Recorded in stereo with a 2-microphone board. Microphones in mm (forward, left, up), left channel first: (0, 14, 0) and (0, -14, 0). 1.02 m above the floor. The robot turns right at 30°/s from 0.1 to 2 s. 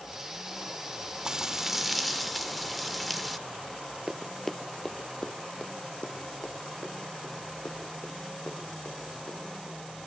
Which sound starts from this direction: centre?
Running footsteps, at 4.1 s.